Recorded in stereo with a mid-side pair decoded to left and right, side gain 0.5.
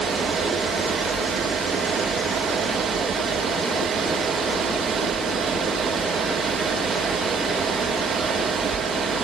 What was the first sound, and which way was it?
A fan, 50° right.